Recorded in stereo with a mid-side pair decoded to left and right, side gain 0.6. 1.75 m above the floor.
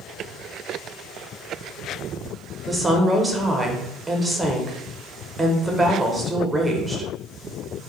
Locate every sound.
2.7 s a woman speaking: 20° right, 0.6 m